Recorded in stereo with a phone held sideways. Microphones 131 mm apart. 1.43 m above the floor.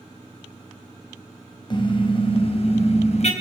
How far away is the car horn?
About 4 m.